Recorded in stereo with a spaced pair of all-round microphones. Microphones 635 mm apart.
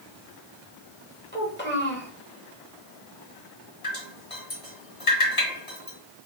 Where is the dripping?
50° left (ahead or behind), 2.5 m.